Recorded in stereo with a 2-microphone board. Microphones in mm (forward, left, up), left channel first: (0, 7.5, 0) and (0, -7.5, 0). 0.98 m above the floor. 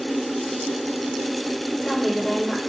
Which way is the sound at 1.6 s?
10° left (ahead or behind).